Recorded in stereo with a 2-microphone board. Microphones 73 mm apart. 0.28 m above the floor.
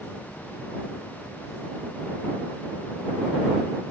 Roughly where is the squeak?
No squeak in this recording.